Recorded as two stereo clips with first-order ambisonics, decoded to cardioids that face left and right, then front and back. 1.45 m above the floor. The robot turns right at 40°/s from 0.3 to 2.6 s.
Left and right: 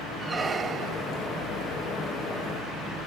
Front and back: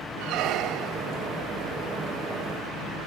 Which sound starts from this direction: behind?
A squeak, at 0.2 s.